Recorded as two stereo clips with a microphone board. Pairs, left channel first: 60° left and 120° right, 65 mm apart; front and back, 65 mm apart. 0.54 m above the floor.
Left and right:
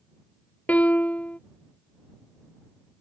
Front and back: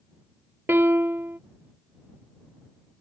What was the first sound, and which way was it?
A piano, 125° left.